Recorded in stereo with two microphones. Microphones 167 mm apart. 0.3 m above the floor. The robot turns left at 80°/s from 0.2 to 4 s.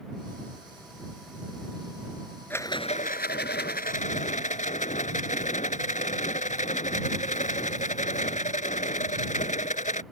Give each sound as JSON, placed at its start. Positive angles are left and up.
{"t": 2.5, "sound": "a rattle", "azimuth_deg": 170}